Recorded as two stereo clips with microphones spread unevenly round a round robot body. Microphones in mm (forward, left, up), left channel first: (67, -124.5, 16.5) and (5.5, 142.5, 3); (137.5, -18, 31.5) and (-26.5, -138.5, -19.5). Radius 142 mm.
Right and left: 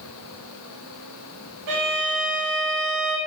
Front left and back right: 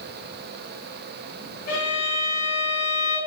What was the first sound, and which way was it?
A violin, 95° left.